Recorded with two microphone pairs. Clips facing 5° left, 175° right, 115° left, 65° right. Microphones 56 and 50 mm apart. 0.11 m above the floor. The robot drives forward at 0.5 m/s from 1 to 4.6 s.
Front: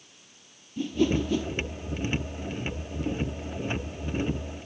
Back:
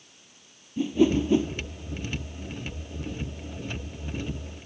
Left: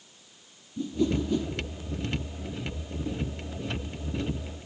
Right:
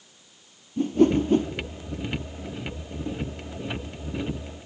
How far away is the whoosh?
About 1.1 m.